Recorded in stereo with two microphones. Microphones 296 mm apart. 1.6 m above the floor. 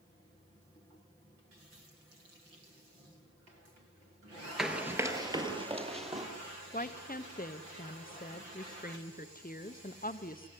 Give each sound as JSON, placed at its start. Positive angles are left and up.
{"t": 4.6, "sound": "running footsteps", "side_deg": 0, "distance_m": 1.7}
{"t": 6.7, "sound": "a woman speaking", "side_deg": 30, "distance_m": 0.9}